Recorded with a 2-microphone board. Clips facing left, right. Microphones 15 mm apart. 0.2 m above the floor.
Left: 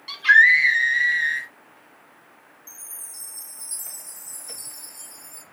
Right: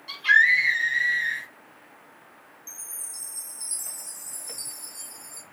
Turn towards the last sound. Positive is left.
turn(degrees=-25)  # may be behind; listen again after turning